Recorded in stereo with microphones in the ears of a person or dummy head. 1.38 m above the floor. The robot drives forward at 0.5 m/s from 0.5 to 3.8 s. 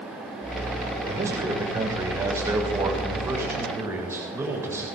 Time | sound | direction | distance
1.1 | a man speaking | 15° right (ahead or behind) | 6 m